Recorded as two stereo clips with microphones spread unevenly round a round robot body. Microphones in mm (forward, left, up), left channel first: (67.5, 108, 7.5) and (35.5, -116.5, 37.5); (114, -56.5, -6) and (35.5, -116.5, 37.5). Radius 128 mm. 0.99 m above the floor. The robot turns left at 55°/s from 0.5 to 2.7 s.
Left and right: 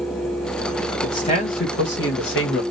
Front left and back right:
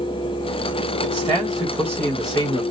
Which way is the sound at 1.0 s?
155° left.